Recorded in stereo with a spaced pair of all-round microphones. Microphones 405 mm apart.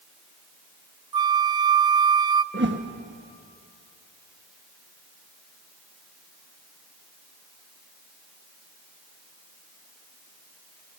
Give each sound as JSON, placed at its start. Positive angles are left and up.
{"t": 1.1, "sound": "a flute", "side_deg": -65, "distance_m": 0.6}
{"t": 2.5, "sound": "a whoosh", "side_deg": -25, "distance_m": 1.2}